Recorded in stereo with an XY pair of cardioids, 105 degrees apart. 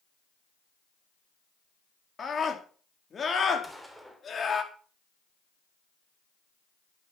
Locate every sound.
2.2 s a scream: 35° left, 4 m
3.6 s a gunshot: straight ahead, 3.5 m